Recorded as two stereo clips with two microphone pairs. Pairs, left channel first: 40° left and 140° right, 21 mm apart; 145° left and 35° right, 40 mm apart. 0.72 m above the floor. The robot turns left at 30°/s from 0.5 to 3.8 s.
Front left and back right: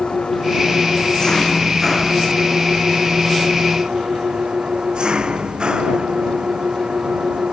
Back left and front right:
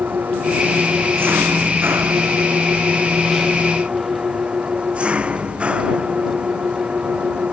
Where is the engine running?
5° left; by 7.5 s 95° right.